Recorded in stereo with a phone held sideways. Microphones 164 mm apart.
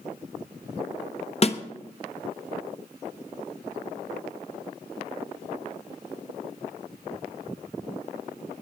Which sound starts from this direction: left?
A snare drum, at 1.4 s.